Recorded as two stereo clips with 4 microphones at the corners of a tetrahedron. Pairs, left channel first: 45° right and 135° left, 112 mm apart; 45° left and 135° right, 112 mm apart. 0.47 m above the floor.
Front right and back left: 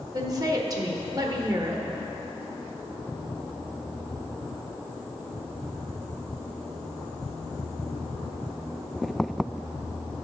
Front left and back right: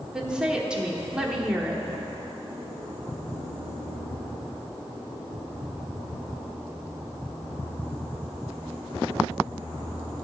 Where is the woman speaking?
145° left, 0.9 m.